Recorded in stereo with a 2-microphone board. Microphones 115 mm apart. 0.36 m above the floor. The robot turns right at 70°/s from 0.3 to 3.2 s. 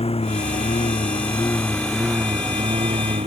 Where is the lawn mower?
65° left; by 3.3 s 90° right.